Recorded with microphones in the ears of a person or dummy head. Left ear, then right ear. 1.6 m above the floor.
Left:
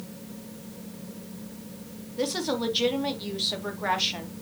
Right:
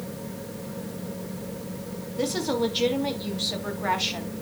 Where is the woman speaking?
10° left (ahead or behind), 1.8 m.